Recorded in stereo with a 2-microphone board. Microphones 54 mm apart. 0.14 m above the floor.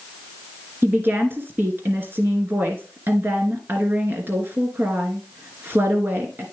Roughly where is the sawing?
No sawing in this recording.